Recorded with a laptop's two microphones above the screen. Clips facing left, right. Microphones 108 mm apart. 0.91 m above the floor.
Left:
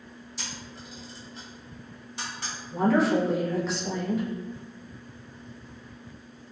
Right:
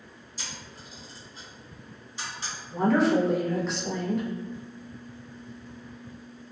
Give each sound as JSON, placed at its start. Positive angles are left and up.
{"t": 0.4, "sound": "a camera shutter", "side_deg": 70, "distance_m": 1.1}
{"t": 2.7, "sound": "a woman speaking", "side_deg": 0, "distance_m": 0.6}